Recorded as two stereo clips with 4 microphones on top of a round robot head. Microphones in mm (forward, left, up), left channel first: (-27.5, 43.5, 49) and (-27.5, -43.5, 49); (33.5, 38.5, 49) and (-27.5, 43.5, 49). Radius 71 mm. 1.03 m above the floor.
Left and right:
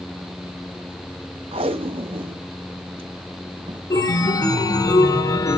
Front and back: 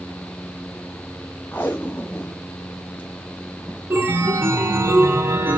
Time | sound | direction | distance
1.5 | tape being pulled | 75° right | 0.5 m
3.9 | a chime | 130° left | 1.3 m